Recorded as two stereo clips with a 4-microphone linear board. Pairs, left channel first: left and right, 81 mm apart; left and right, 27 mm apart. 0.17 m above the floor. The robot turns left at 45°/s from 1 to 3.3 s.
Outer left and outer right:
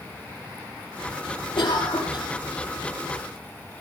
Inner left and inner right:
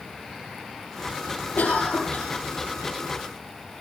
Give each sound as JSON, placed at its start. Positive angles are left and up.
{"t": 1.6, "sound": "a cough", "azimuth_deg": 90, "distance_m": 6.5}